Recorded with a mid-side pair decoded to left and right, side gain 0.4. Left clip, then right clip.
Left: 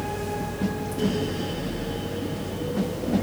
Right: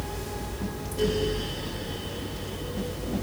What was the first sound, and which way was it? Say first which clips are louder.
A fan: left 6 dB; 40° right.